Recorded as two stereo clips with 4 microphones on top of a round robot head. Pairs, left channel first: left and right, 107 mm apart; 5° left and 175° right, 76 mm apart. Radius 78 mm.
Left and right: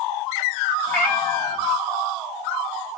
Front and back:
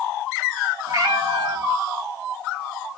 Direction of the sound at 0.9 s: 165° left.